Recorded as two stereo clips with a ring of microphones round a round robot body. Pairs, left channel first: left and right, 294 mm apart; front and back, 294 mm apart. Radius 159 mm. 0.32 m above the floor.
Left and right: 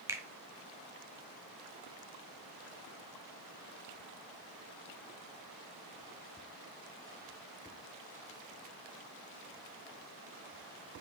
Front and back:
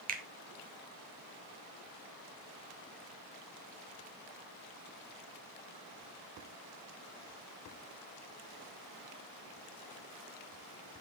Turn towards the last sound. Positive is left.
turn(degrees=-160)